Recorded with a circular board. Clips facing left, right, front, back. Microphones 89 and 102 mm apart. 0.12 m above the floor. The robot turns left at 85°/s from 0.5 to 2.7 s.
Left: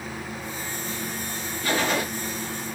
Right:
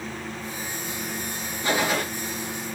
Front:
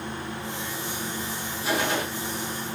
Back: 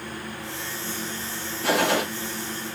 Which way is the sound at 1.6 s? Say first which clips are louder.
Even, back 4 dB; 155° right.